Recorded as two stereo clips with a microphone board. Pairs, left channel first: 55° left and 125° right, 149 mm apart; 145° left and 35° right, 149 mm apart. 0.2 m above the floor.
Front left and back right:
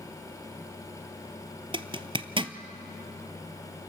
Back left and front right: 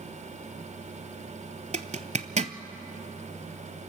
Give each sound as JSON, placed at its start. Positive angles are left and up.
{"t": 1.7, "sound": "a zipper", "azimuth_deg": -70, "distance_m": 0.7}